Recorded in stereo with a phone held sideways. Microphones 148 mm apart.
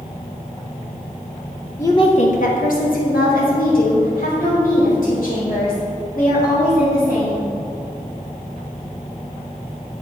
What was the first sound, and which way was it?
A woman speaking, 15° left (ahead or behind).